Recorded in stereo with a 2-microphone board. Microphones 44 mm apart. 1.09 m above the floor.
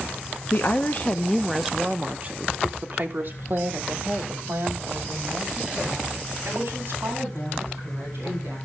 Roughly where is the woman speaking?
Left.